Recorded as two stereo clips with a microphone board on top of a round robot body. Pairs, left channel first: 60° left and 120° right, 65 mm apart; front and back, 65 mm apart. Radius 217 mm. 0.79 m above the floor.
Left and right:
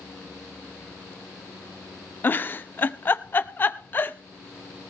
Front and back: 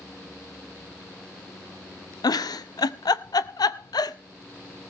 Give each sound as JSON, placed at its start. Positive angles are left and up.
{"t": 2.2, "sound": "a giggle", "azimuth_deg": 0, "distance_m": 0.6}